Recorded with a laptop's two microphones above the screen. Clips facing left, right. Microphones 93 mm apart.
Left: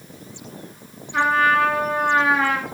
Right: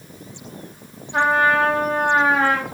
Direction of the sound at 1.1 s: 35° right (ahead or behind).